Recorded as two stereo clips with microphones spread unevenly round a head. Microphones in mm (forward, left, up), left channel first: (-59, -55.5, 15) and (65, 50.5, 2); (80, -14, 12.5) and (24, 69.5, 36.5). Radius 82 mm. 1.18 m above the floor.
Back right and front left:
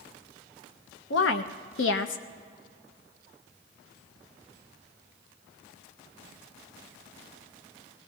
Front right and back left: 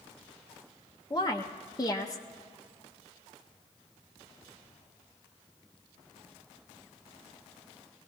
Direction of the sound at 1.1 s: 120° right.